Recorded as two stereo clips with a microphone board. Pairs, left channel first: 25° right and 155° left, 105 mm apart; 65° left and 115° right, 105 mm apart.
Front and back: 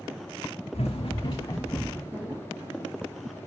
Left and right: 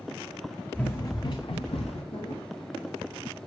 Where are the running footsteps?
10° right, 1.0 m; by 2.0 s 50° left, 1.8 m.